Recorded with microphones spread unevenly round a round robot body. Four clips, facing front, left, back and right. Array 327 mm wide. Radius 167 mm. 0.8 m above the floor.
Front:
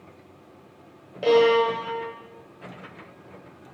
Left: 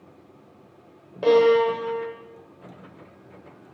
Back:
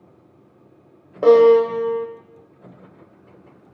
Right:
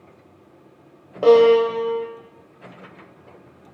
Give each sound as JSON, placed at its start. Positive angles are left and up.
{"t": 1.2, "sound": "a violin", "azimuth_deg": -160, "distance_m": 2.0}